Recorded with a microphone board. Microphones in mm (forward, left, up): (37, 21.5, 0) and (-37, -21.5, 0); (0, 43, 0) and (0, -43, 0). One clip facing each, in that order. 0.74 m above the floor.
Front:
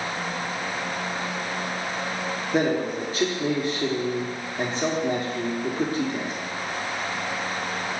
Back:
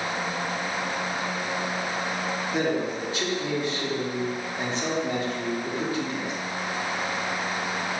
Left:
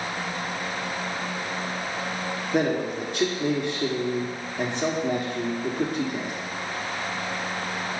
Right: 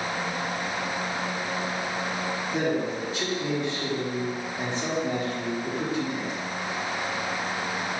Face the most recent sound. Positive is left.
turn(degrees=75)